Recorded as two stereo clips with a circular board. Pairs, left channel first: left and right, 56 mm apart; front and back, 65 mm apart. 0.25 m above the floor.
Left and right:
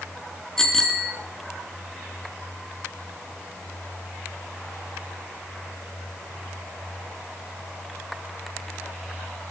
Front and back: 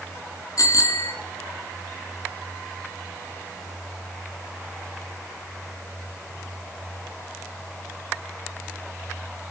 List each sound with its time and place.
0.6 s a bicycle bell: 10° left, 2 m